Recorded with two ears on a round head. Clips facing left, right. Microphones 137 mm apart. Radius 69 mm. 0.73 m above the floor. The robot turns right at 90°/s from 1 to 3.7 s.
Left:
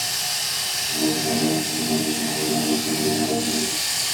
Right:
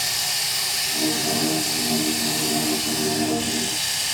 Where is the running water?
165° right, 8 m; by 4.1 s 80° left, 8 m.